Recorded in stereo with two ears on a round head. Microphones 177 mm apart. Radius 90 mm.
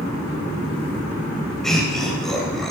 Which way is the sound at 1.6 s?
Centre (ahead or behind).